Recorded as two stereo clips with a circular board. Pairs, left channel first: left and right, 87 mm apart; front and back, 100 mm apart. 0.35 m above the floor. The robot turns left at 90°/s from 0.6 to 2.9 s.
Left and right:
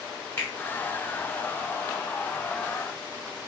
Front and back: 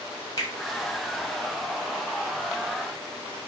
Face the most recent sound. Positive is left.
turn(degrees=-170)